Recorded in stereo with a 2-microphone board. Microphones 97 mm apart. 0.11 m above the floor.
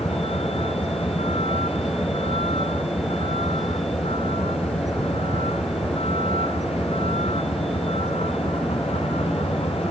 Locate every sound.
0.0 s a vehicle: 80° left